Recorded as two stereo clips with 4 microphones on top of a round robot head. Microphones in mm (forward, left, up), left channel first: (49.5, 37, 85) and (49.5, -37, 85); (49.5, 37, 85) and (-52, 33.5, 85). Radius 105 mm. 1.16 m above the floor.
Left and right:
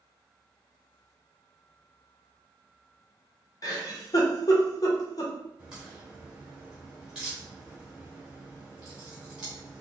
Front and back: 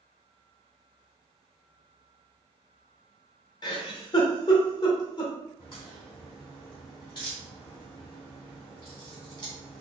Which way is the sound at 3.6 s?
50° left.